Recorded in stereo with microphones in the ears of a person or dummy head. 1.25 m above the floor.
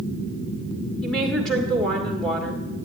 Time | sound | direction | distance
1.0 | a woman speaking | centre (ahead or behind) | 1.7 m